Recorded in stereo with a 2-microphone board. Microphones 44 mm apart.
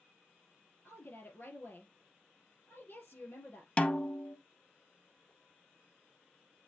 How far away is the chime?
No chime in this recording.